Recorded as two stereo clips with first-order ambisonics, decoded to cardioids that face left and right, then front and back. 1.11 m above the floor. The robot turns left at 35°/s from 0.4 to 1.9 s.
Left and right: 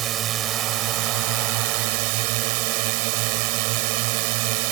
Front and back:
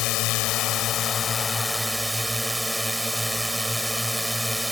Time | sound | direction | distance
0.0 | a drone | 40° right | ?